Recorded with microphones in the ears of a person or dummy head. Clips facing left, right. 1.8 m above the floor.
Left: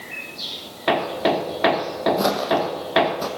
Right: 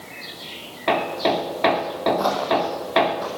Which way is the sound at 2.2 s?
30° left (ahead or behind).